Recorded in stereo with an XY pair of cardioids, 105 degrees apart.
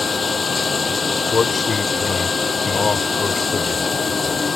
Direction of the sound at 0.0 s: 30° left.